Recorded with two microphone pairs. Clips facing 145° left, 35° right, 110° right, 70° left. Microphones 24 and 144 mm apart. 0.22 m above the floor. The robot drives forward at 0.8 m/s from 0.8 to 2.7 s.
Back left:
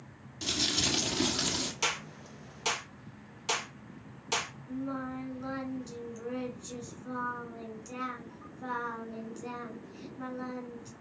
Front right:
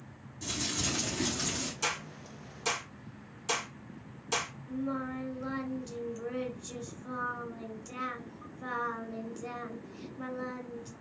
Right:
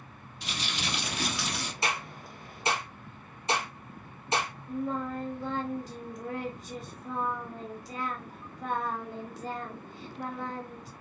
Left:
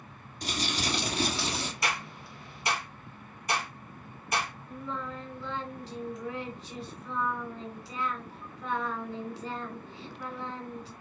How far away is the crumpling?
About 3 m.